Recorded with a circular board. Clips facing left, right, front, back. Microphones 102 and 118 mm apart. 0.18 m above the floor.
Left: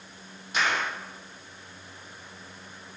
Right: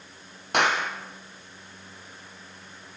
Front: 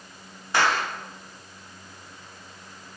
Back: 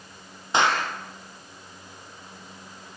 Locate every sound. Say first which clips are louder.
0.5 s a clap: right 4 dB, back 1 dB; 110° right, 4.5 m